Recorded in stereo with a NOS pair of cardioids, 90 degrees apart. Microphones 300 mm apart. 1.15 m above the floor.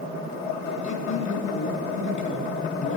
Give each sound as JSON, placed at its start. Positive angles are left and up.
{"t": 0.8, "sound": "a man speaking", "azimuth_deg": 45, "distance_m": 3.0}